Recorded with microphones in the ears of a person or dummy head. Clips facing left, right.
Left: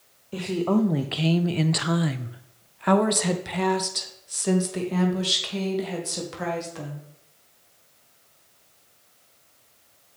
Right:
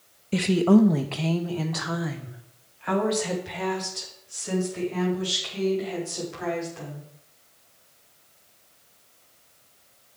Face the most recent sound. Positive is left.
turn(degrees=80)